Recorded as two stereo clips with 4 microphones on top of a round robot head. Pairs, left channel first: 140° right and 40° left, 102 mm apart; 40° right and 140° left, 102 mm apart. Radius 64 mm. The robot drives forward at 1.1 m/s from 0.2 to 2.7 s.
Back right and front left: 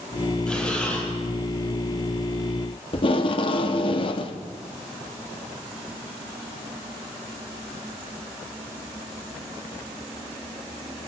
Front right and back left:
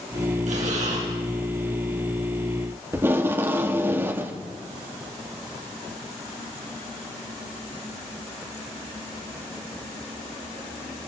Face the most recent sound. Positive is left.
turn(degrees=-155)